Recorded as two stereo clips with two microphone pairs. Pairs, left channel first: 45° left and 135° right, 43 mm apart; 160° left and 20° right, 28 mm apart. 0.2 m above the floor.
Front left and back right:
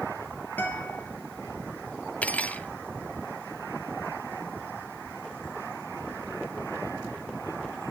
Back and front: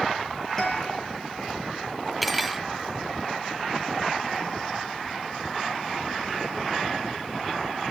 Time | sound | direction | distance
0.6 | a guitar | 85° left | 5.5 m
2.2 | cutlery clinking | 70° left | 0.8 m